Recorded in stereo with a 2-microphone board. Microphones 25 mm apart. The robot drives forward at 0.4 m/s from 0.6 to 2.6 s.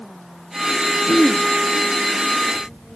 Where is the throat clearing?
30° left (ahead or behind), 0.5 m.